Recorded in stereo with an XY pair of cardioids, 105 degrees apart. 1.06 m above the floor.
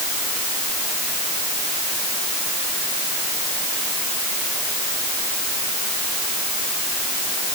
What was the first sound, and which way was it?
Only background noise.